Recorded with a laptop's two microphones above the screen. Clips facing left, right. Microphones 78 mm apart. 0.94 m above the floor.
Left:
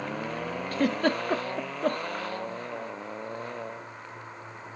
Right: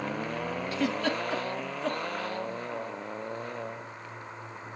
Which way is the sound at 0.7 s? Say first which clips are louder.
Left 4 dB; 45° left (ahead or behind).